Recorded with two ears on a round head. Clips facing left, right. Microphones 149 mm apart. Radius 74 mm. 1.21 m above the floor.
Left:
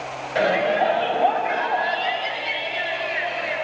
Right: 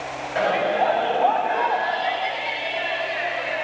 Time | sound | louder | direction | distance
0.3 | a shout | left 1 dB | 35° left (ahead or behind) | 6 m